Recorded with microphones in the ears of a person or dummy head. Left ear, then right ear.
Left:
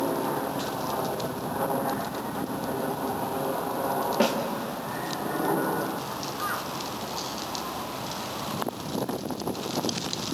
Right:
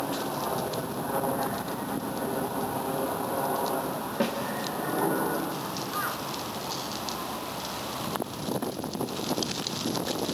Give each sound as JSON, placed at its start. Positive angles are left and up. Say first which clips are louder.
{"t": 4.2, "sound": "a snare drum", "louder": "left 4 dB", "side_deg": 25, "distance_m": 2.5}